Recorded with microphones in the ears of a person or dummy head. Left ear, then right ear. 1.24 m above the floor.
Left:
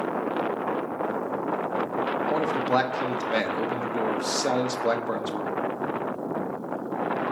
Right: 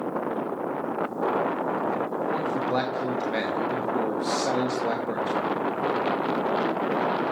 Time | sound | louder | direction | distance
2.3 | a man speaking | left 3 dB | 25° left (ahead or behind) | 0.8 m